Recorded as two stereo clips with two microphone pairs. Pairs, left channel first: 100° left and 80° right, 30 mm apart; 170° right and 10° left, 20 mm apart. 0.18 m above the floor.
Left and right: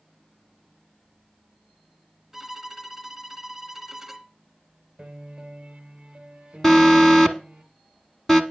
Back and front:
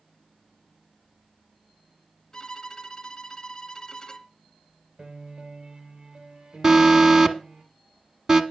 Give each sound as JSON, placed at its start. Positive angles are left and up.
{"t": 2.3, "sound": "a violin", "azimuth_deg": -155, "distance_m": 1.2}
{"t": 5.0, "sound": "a piano", "azimuth_deg": -15, "distance_m": 2.0}
{"t": 6.6, "sound": "an alarm", "azimuth_deg": 25, "distance_m": 1.0}